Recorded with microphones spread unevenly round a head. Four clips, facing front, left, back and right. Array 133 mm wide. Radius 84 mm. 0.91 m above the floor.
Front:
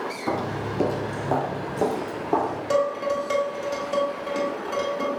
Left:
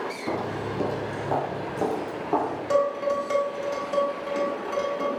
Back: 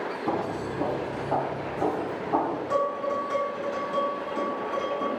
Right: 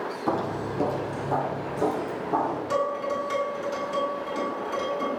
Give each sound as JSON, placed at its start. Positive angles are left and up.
{"t": 0.3, "sound": "footsteps", "azimuth_deg": -75, "distance_m": 0.9}
{"t": 2.7, "sound": "dishes clattering", "azimuth_deg": 20, "distance_m": 3.5}